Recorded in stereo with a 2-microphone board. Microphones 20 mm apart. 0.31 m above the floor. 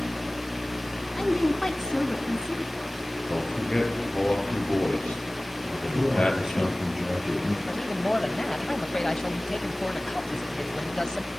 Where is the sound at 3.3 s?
60° left (ahead or behind), 8.5 m.